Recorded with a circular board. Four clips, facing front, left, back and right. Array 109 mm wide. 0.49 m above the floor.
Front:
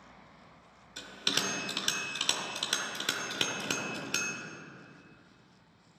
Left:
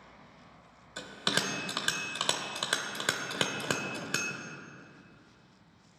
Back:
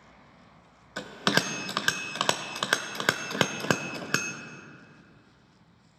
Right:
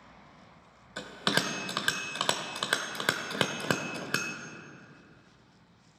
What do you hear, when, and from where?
1.0 s a bell: 165° right, 0.6 m